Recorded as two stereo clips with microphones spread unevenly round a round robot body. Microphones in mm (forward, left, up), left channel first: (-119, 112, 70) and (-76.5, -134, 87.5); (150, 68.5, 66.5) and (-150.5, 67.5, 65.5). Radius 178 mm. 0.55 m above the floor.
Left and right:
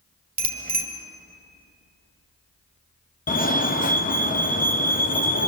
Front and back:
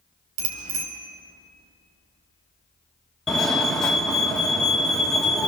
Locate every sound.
0.4 s a bicycle bell: 135° right, 2.5 m
3.3 s a fire alarm: 85° left, 1.9 m